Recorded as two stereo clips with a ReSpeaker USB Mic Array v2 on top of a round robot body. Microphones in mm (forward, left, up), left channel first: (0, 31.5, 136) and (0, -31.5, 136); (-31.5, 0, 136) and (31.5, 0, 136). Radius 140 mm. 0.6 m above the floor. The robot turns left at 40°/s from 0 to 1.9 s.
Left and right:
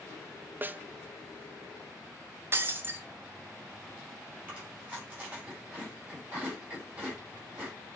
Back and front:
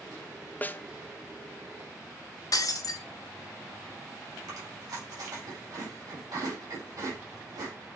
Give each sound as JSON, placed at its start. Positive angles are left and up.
{"t": 0.6, "sound": "a snare drum", "azimuth_deg": -130, "distance_m": 0.5}
{"t": 2.5, "sound": "breaking glass", "azimuth_deg": -145, "distance_m": 0.6}
{"t": 4.5, "sound": "chewing", "azimuth_deg": -25, "distance_m": 4.5}